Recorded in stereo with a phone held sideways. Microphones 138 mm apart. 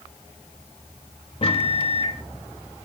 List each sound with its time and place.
1.4 s a microwave: 40° left (ahead or behind), 1.4 m